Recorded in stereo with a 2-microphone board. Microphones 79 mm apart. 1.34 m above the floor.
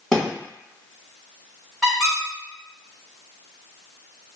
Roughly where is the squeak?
Centre.